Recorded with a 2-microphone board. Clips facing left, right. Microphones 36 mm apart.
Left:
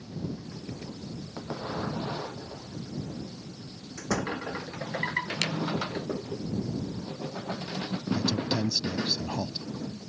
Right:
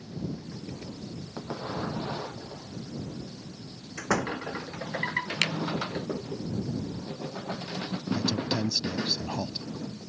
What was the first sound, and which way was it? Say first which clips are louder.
A door slam: right 2 dB; 55° right (ahead or behind).